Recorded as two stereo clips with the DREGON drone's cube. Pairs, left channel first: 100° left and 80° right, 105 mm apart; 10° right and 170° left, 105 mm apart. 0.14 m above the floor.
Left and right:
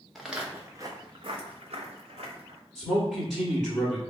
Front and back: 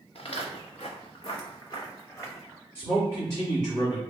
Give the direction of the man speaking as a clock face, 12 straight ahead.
12 o'clock.